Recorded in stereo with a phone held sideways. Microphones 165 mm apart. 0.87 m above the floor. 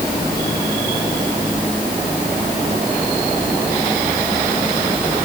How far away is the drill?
I don't hear a drill.